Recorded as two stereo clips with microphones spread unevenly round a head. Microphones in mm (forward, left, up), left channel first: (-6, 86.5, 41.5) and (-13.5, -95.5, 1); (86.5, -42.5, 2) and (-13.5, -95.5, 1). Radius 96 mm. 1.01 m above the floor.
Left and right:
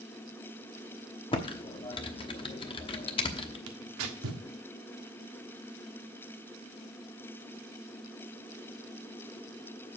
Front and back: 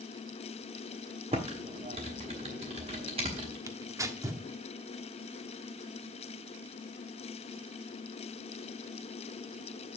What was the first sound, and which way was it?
Typing on a keyboard, 150° left.